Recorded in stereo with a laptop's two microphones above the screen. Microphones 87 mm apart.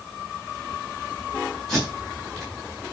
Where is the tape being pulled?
5° left (ahead or behind), 5.5 m.